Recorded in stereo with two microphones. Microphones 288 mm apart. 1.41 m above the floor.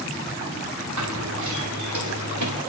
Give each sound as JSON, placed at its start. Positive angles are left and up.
{"t": 1.0, "sound": "running footsteps", "side_deg": -75, "distance_m": 8.0}